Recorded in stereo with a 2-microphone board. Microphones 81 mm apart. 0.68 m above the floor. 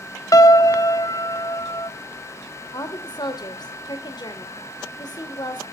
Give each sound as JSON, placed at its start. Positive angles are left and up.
{"t": 0.3, "sound": "a piano", "side_deg": 45, "distance_m": 1.0}
{"t": 2.7, "sound": "a woman speaking", "side_deg": 60, "distance_m": 2.0}